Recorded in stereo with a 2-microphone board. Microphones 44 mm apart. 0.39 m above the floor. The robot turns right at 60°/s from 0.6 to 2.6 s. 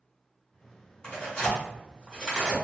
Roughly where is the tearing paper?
Left.